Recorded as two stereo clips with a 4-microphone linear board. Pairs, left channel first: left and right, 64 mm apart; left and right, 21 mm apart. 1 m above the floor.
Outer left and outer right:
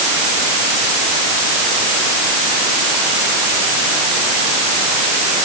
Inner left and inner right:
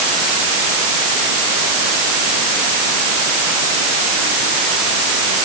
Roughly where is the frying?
I don't hear frying.